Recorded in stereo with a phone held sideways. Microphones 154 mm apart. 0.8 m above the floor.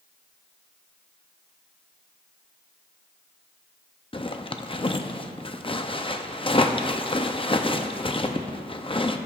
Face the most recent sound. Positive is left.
turn(degrees=35)  # may be behind; listen again after turning